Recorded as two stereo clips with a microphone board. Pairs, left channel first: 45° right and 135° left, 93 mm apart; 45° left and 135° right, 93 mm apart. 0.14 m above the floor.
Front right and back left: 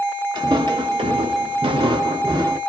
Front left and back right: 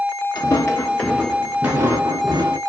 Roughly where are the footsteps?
Left.